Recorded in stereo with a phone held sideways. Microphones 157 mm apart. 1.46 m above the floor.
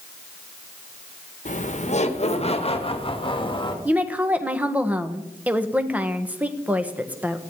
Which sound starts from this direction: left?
Laughter, at 1.4 s.